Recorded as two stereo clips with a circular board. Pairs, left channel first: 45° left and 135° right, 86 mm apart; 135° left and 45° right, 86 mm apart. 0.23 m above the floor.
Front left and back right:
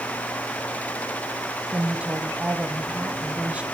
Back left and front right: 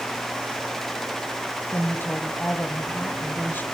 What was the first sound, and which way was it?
A woman speaking, 170° left.